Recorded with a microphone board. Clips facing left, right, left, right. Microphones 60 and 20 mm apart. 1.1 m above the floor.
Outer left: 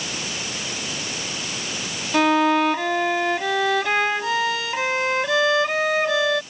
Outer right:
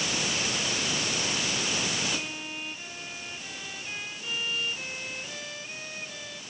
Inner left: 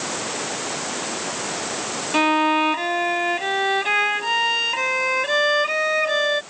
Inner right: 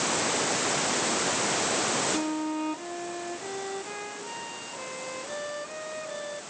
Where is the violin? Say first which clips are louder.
Outer left 20 dB, inner left 12 dB; 85° left.